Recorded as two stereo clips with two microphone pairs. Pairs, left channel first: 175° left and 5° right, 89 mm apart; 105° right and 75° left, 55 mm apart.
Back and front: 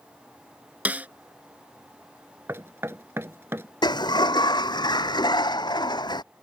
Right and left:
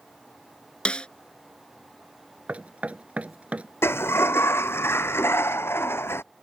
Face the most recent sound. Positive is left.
turn(degrees=-150)